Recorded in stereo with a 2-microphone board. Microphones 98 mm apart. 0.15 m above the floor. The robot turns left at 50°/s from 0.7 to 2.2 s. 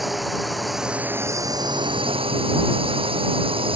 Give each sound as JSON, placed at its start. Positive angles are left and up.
{"t": 0.0, "sound": "a drone", "side_deg": 0}